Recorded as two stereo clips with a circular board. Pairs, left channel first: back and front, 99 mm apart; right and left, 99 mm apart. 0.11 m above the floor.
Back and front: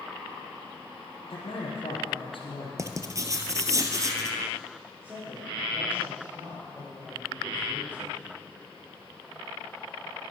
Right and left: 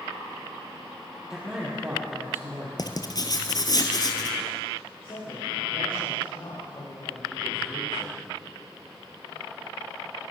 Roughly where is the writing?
Ahead right.